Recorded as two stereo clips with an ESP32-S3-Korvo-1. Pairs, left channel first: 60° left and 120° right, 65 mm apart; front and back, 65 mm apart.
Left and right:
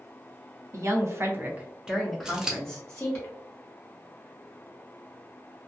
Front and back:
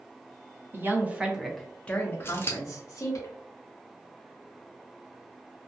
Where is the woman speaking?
135° right, 0.7 m; by 3.2 s 5° right, 1.0 m.